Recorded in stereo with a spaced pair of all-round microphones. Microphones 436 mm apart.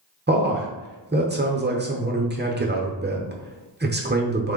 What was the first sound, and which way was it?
A man speaking, 25° right (ahead or behind).